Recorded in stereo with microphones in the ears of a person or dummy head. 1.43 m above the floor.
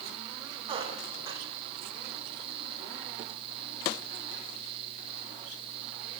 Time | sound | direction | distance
0.7 | a squeak | 30° right (ahead or behind) | 3.5 m